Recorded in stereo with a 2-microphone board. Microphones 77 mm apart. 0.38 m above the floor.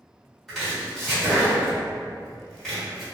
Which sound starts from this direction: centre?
Chopping, at 0.5 s.